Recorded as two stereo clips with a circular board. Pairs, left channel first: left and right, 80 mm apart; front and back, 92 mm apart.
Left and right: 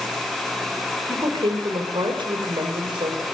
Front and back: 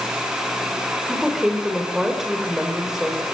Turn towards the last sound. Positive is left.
turn(degrees=-95)